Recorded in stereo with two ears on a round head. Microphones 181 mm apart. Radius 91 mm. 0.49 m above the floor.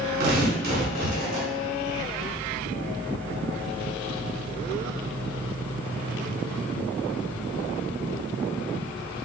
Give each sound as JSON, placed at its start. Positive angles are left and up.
{"t": 0.2, "sound": "tearing paper", "side_deg": -50, "distance_m": 1.5}